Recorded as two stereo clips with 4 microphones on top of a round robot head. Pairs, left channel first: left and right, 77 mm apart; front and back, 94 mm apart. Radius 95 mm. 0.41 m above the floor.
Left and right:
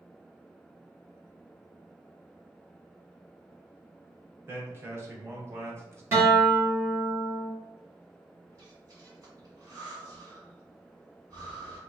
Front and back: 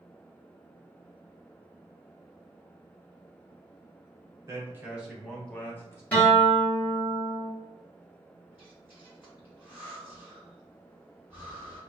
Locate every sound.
4.5 s a man speaking: 140° right, 1.1 m; by 6.0 s 45° right, 1.2 m
6.1 s a guitar: 65° right, 1.6 m
8.5 s breathing: 110° right, 1.9 m